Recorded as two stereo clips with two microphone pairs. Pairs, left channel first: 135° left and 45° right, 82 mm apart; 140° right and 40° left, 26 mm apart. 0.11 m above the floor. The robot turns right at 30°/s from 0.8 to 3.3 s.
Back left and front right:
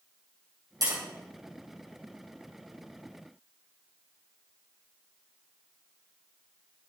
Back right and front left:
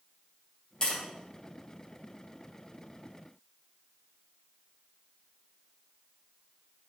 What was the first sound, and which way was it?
Tapping, 80° right.